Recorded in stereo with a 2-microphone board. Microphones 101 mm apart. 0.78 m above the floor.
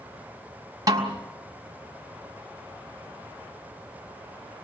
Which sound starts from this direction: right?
A snare drum, at 0.9 s.